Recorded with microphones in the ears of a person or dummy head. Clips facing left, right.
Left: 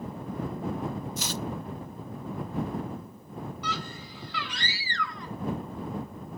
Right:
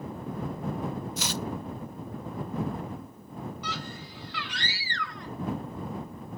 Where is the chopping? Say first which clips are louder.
Even; 55° right (ahead or behind).